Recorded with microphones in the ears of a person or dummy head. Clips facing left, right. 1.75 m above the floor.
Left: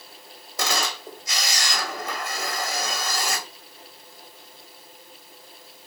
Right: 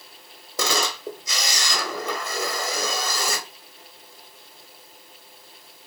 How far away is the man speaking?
No man speaking in this recording.